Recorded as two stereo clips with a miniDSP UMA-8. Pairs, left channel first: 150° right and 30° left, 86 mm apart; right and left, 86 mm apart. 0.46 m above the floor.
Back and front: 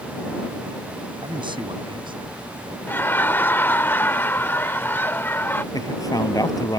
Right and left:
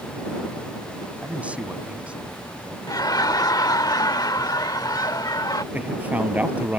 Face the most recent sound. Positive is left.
turn(degrees=165)